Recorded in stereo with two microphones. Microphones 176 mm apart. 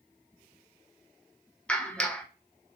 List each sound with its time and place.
1.7 s a clap: 5° left (ahead or behind), 1.4 m